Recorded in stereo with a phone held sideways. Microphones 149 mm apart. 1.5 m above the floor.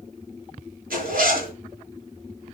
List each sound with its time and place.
0.9 s a zipper: 75° right (ahead or behind), 5.5 m